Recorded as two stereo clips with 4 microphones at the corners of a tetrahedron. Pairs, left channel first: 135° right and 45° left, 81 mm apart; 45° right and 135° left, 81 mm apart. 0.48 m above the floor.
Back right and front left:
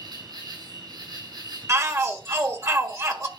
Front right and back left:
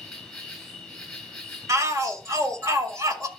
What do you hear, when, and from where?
0.0 s an insect: 40° left, 4 m
1.7 s a shout: 95° left, 1.5 m